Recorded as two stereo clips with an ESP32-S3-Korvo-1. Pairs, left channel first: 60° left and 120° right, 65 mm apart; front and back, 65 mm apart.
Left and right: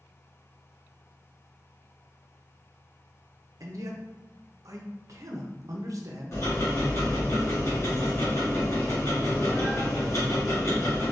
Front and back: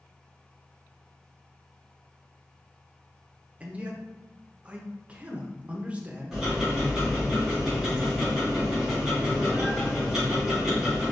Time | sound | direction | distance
3.6 | a man speaking | 115° right | 0.6 m
6.3 | ticking | 95° left | 1.8 m